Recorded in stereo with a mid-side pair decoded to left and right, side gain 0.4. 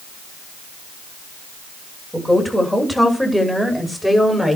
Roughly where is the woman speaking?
Ahead.